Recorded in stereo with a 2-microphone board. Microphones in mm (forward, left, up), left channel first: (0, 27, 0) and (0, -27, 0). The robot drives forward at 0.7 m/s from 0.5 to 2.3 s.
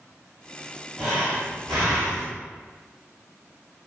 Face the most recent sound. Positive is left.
turn(degrees=0)  # may be behind; listen again after turning